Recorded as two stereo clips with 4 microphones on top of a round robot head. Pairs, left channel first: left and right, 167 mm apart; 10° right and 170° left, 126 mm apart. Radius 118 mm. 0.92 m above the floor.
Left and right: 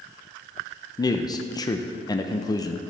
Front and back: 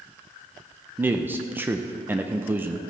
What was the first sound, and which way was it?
A man speaking, 120° left.